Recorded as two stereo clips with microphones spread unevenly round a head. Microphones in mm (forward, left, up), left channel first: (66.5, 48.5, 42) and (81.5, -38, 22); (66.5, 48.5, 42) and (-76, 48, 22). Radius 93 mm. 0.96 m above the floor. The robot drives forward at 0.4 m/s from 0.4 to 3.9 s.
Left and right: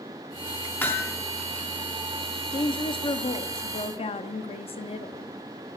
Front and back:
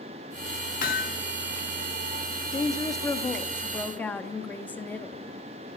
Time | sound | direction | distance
0.8 | hammering | 30° left | 2 m
2.5 | a woman speaking | 65° left | 1.8 m